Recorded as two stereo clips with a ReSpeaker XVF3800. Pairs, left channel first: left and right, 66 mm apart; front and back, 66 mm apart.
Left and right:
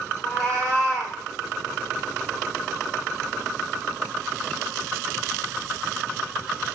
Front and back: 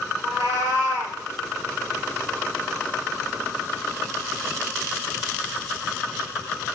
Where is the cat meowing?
175° left, 3 m.